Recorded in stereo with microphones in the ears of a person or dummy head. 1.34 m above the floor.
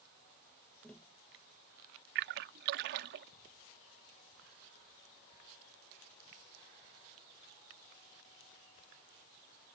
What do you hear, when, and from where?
0.8 s tapping: 10° left (ahead or behind)
2.1 s a splash: 55° right (ahead or behind)